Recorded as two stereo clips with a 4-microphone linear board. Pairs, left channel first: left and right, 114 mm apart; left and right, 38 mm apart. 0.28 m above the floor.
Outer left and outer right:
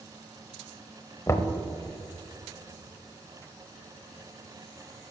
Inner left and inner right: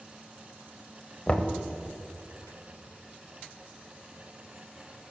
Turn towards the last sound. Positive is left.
turn(degrees=25)  # may be behind; listen again after turning